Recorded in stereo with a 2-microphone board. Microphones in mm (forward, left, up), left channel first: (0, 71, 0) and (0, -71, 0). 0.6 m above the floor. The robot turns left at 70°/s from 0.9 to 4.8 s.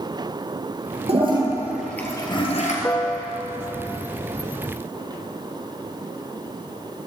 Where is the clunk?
I don't hear a clunk.